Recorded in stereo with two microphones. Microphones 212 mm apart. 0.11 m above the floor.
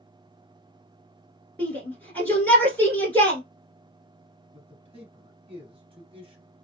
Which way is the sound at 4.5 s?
25° right (ahead or behind).